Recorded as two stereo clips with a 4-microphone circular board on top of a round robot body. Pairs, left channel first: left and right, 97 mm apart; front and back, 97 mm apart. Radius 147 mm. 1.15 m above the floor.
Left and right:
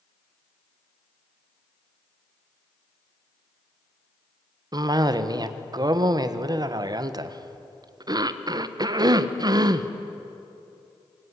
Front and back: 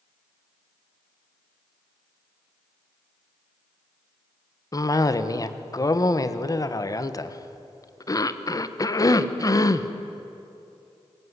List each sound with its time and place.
4.7 s a cough: 50° right, 1.4 m